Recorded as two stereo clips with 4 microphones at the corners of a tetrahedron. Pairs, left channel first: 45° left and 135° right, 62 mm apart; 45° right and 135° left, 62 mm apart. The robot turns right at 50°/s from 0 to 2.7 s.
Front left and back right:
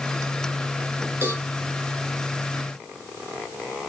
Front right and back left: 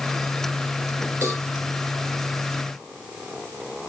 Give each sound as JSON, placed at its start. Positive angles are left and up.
{"t": 1.2, "sound": "a cowbell", "azimuth_deg": 175, "distance_m": 2.5}